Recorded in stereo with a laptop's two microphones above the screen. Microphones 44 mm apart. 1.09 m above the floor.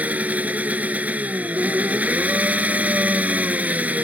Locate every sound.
0.0 s an engine running: 35° right (ahead or behind)